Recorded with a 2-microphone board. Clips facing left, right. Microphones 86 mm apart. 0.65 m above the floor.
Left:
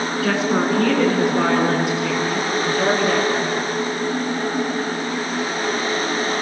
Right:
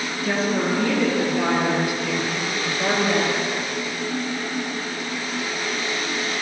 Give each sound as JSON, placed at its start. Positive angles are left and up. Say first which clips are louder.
{"t": 0.2, "sound": "a woman speaking", "louder": "left 2 dB", "side_deg": 75, "distance_m": 7.0}